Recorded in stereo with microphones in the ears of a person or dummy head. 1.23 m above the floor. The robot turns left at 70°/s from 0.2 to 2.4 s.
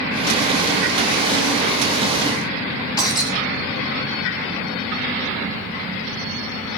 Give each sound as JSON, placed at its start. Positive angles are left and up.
{"t": 3.0, "sound": "breaking glass", "side_deg": 25, "distance_m": 5.0}